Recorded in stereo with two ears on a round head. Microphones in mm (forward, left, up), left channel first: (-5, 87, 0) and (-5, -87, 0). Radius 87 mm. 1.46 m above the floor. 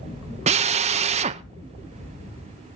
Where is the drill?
35° right (ahead or behind), 0.6 m.